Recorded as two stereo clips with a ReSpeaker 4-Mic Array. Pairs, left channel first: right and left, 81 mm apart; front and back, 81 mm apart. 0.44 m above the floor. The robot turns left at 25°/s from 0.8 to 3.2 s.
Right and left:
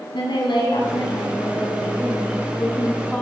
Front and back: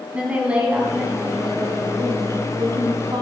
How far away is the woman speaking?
About 3.5 m.